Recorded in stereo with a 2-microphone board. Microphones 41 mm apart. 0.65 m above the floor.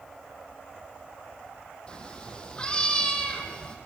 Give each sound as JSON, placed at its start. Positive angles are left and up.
{"t": 1.9, "sound": "a cat meowing", "side_deg": 25, "distance_m": 2.5}